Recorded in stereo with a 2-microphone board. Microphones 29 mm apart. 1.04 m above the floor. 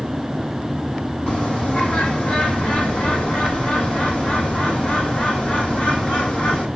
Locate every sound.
1.3 s a bird: 55° left (ahead or behind), 5 m